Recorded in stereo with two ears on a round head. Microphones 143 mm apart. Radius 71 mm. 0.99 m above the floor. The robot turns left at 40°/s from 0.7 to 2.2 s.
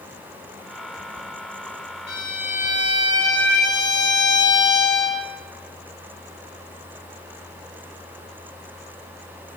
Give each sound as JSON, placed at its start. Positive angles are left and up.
{"t": 2.1, "sound": "a violin", "side_deg": 75, "distance_m": 1.5}